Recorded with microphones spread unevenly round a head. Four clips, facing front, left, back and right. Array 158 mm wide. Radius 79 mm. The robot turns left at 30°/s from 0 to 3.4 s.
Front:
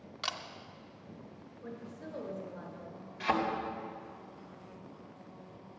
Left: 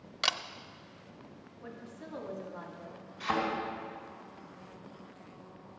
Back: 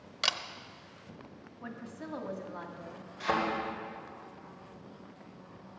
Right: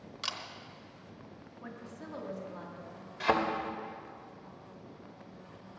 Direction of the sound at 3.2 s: 95° right.